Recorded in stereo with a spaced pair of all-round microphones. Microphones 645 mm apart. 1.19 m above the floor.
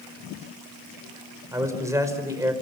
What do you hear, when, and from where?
1.5 s a man speaking: 5° right (ahead or behind), 4.5 m